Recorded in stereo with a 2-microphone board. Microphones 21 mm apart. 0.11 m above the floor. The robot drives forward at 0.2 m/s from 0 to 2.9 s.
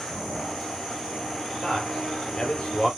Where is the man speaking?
50° left (ahead or behind), 2.5 m.